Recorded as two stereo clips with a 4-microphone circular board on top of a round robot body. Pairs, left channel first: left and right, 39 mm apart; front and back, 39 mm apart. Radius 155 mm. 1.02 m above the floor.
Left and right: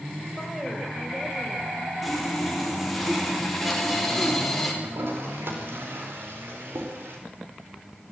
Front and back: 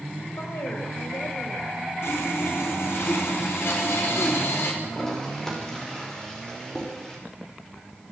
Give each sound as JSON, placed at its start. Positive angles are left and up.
{"t": 0.4, "sound": "a woman speaking", "azimuth_deg": 0, "distance_m": 5.5}
{"t": 2.0, "sound": "sawing", "azimuth_deg": 0, "distance_m": 4.5}
{"t": 4.8, "sound": "a toilet flushing", "azimuth_deg": -80, "distance_m": 4.5}